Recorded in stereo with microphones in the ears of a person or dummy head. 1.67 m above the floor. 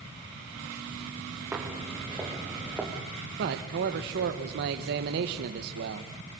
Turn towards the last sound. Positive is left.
turn(degrees=-55)  # may be behind; listen again after turning